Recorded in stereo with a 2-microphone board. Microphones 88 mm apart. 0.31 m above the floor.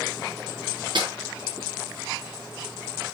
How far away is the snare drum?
About 5 m.